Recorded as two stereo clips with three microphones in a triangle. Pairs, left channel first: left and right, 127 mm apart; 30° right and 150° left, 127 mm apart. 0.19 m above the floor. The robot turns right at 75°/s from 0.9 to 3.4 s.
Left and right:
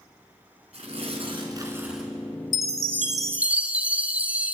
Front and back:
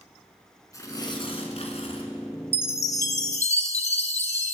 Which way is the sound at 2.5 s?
75° right.